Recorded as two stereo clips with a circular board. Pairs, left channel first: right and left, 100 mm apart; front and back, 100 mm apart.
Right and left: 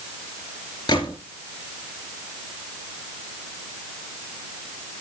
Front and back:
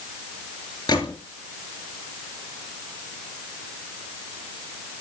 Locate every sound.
0.9 s a gunshot: 45° right, 3 m